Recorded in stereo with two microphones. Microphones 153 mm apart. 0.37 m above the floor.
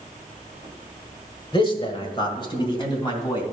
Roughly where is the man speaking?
Left.